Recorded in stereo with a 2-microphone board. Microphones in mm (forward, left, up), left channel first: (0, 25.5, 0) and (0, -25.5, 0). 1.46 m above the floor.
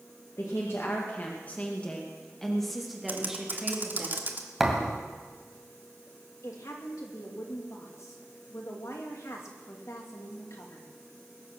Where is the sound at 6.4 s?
80° left, 2.5 m.